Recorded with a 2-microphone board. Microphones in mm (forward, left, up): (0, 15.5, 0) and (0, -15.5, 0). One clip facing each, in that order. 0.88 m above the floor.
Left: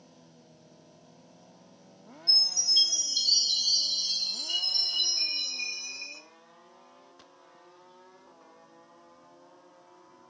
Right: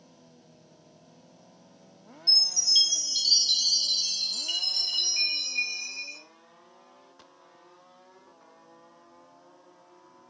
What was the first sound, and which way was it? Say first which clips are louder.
A chime: right 2 dB; 80° right.